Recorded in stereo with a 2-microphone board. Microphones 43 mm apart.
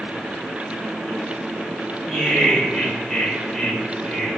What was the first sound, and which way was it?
Laughter, 15° left (ahead or behind).